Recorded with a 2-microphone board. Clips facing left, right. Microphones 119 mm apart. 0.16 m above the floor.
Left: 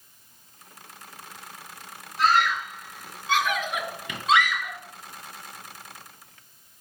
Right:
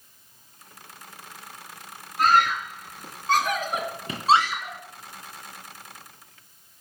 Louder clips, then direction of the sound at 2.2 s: Right 1 dB; 45° right (ahead or behind).